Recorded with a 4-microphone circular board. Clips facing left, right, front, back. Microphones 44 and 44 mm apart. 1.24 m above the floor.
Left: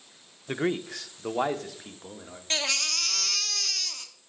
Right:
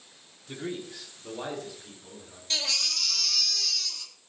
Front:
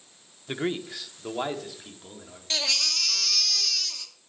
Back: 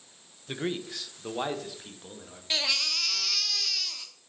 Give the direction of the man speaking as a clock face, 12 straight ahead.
10 o'clock.